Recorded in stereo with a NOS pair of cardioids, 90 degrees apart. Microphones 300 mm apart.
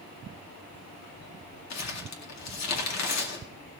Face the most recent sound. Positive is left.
turn(degrees=60)